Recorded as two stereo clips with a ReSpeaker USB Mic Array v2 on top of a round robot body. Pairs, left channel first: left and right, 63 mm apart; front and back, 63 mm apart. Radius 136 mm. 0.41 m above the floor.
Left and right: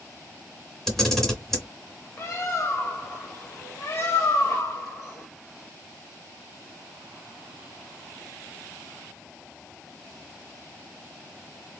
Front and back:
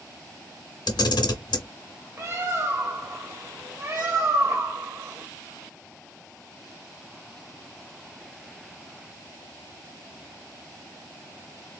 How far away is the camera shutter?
About 1.3 m.